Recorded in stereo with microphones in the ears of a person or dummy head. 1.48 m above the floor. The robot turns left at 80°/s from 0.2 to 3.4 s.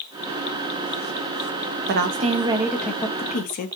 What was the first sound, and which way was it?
A woman speaking, 110° right.